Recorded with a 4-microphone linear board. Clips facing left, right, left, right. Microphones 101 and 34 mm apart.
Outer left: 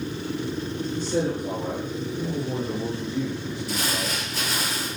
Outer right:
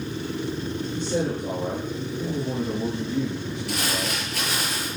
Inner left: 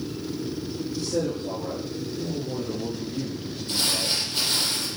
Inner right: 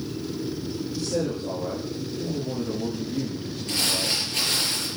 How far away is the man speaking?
About 6.5 m.